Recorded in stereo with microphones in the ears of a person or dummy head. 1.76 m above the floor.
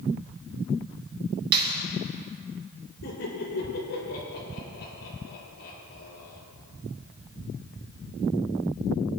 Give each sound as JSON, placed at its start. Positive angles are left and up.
{"t": 1.5, "sound": "a clap", "side_deg": -65, "distance_m": 2.5}
{"t": 3.0, "sound": "laughter", "side_deg": 65, "distance_m": 5.0}